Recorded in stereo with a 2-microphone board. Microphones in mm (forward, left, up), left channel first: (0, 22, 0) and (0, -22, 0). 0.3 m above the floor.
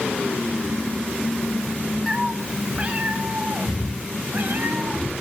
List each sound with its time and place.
2.1 s a cat meowing: 10° right (ahead or behind), 1.5 m; by 5.1 s 45° right (ahead or behind), 4.5 m